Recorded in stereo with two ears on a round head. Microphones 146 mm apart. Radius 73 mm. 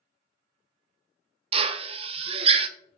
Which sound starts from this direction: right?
A drill, at 1.5 s.